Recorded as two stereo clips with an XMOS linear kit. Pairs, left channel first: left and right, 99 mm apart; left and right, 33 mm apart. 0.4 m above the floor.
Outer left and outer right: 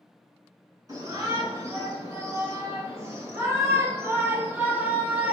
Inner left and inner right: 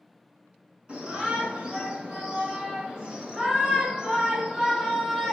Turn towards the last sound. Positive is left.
turn(degrees=-15)  # may be behind; listen again after turning